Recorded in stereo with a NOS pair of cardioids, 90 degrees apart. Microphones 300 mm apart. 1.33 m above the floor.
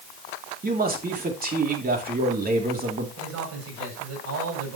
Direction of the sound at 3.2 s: 70° right.